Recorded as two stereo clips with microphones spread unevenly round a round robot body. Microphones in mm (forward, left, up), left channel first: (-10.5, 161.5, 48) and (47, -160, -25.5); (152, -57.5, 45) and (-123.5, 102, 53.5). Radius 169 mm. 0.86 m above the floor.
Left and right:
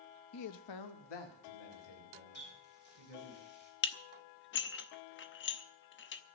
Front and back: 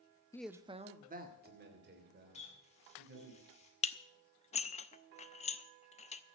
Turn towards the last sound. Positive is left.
turn(degrees=40)